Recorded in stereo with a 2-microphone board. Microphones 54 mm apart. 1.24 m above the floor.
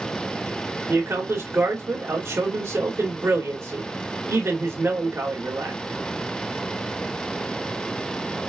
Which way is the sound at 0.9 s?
50° right (ahead or behind).